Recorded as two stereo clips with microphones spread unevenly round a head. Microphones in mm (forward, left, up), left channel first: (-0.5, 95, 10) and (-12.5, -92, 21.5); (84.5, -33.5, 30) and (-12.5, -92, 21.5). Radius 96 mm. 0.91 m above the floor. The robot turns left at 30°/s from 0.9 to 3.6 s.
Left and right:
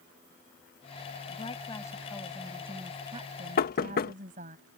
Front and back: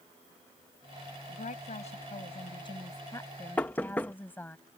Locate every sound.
1.3 s a woman speaking: 25° left; by 4.6 s 40° right
3.6 s knocking: 115° left; by 4.1 s 110° left